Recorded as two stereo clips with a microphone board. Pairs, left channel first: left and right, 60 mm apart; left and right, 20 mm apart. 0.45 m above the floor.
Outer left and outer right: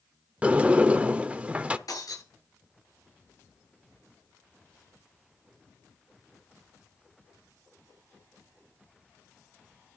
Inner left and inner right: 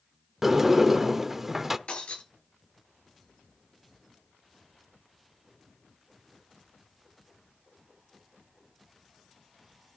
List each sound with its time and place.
0.4 s a sliding door: 20° right (ahead or behind), 0.7 m
1.9 s breaking glass: 80° left, 8 m